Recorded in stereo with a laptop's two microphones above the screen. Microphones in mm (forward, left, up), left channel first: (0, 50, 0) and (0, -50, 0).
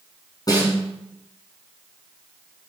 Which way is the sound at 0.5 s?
40° left (ahead or behind).